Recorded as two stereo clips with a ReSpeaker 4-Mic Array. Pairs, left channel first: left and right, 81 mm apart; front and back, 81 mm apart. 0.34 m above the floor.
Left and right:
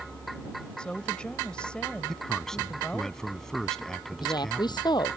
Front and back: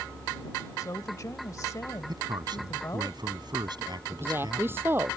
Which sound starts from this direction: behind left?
A woman speaking, at 4.1 s.